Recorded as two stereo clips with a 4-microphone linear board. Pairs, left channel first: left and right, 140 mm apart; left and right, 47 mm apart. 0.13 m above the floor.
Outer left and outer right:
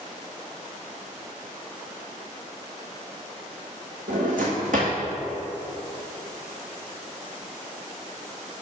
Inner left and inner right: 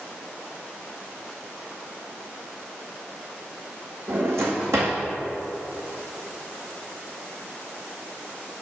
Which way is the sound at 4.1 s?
80° right.